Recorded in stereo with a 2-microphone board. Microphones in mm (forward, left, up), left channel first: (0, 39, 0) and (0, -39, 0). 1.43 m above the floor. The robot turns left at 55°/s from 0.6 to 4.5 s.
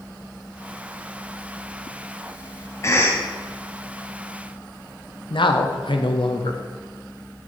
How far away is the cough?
About 0.6 m.